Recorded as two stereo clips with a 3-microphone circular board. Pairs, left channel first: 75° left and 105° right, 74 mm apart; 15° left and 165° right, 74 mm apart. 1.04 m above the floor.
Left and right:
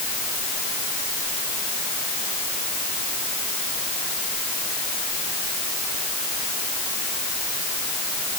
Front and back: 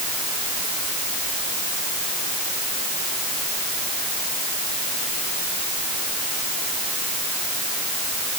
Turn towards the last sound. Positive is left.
No sound to turn to.